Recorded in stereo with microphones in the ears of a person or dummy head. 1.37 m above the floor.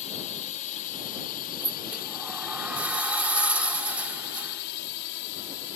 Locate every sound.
0.0 s a drone: 30° left (ahead or behind); by 5.8 s 60° left (ahead or behind)
1.6 s a sliding door: 15° right (ahead or behind)